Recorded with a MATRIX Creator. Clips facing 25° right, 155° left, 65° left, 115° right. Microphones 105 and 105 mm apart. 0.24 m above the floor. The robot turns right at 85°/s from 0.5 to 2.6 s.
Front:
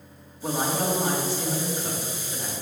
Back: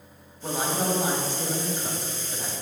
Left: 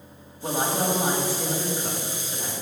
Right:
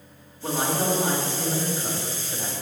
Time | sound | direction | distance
0.4 | a woman speaking | 55° left | 1.3 m